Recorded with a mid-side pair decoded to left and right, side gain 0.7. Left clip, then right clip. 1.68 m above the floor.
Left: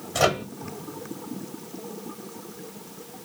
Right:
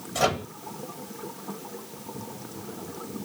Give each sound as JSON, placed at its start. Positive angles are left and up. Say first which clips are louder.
{"t": 0.1, "sound": "a microwave", "louder": "left 3 dB", "azimuth_deg": 30, "distance_m": 1.5}